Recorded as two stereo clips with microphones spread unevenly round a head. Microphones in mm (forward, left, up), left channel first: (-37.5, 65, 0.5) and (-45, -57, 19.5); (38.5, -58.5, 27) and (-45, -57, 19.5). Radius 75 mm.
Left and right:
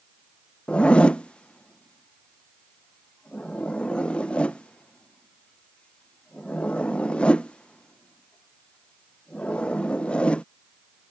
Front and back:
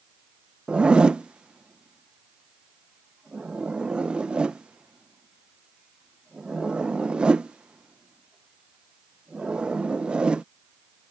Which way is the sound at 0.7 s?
130° left.